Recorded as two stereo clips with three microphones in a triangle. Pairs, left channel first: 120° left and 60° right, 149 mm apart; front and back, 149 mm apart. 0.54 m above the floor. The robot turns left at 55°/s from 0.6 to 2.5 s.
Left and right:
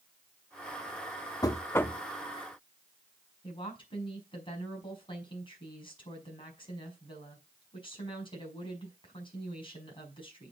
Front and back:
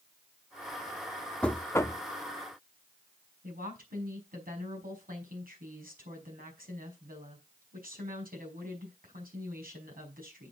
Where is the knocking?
75° left, 0.7 m; by 2.0 s 45° left, 0.7 m.